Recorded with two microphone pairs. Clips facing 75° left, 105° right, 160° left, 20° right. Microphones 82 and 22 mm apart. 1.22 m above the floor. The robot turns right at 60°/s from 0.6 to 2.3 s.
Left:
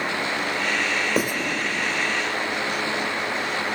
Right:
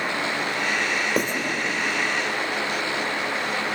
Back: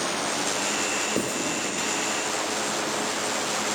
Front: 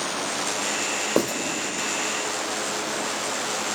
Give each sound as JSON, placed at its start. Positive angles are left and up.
{"t": 1.2, "sound": "writing", "azimuth_deg": -15, "distance_m": 2.5}